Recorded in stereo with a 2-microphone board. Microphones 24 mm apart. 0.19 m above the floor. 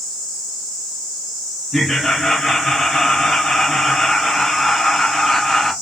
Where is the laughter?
15° left (ahead or behind), 1.6 m.